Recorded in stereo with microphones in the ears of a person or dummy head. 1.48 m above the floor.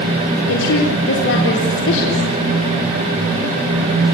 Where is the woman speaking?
65° left (ahead or behind), 4 m.